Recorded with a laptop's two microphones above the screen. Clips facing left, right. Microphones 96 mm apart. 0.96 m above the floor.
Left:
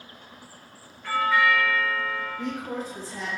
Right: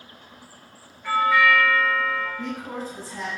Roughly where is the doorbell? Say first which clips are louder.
Right 3 dB; centre.